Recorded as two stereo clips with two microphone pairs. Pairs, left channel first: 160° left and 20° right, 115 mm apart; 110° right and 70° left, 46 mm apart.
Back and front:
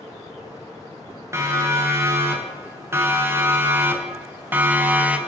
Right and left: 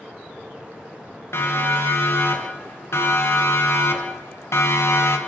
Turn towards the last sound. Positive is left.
turn(degrees=-95)